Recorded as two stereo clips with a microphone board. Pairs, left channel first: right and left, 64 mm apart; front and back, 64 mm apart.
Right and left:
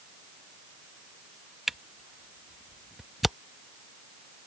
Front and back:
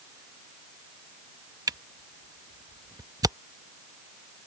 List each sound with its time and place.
1.7 s a camera shutter: straight behind